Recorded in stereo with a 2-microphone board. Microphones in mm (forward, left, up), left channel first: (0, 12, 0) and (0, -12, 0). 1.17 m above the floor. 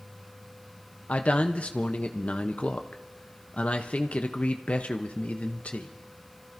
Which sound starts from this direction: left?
A man speaking, at 1.1 s.